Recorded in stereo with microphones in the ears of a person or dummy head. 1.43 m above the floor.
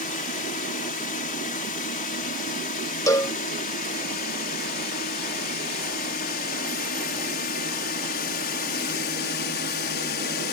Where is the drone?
35° left (ahead or behind); by 10.5 s 45° left (ahead or behind).